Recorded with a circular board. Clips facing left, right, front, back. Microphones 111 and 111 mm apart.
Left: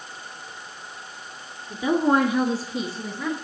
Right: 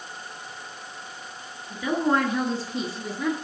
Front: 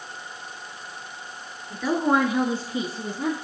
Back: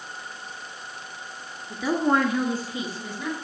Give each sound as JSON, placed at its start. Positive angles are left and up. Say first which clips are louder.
{"t": 1.7, "sound": "a woman speaking", "louder": "left 3 dB, front 1 dB", "azimuth_deg": 105, "distance_m": 1.7}